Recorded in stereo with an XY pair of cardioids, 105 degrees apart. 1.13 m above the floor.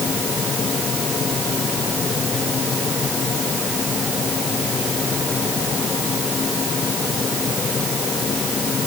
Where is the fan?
40° left.